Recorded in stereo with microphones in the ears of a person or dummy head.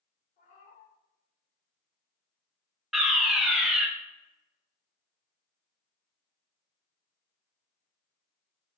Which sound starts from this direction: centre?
A fire alarm, at 2.9 s.